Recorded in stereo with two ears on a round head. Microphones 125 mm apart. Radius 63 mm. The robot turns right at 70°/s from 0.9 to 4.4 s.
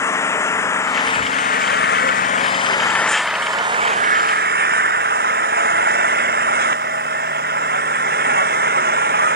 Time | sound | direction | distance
0.0 | an engine running | 20° left | ?